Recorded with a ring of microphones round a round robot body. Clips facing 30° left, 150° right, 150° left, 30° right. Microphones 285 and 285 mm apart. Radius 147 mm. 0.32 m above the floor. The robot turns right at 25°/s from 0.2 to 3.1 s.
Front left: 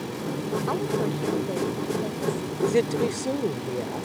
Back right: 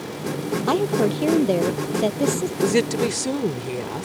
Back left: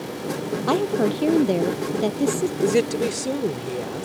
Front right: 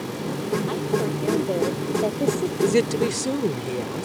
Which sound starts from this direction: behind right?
A woman speaking, at 2.6 s.